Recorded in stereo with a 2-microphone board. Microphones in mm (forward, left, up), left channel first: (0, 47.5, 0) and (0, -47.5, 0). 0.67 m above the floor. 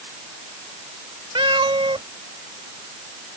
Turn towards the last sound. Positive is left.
turn(degrees=-65)  # may be behind; listen again after turning